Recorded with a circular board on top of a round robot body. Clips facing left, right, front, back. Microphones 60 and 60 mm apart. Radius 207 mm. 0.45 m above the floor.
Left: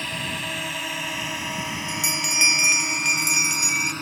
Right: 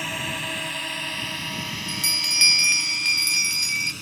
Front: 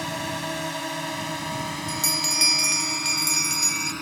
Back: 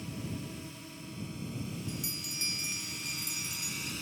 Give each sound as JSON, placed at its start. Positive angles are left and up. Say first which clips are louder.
{"t": 0.0, "sound": "a drone", "louder": "even, front 12 dB", "azimuth_deg": -5}
{"t": 1.9, "sound": "a bell", "louder": "left 2 dB, front 12 dB", "azimuth_deg": 15}